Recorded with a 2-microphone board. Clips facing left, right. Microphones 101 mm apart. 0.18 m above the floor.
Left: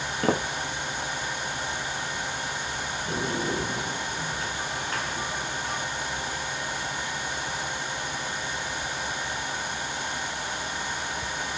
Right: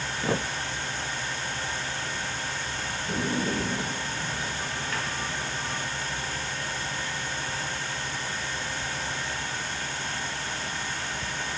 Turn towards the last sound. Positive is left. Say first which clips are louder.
# right 1 dB
turn(degrees=40)  # may be behind; listen again after turning